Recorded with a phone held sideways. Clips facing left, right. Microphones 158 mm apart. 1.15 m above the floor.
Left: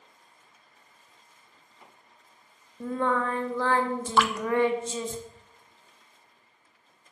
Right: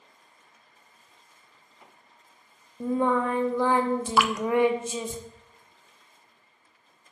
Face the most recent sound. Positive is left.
turn(degrees=-5)  # may be behind; listen again after turning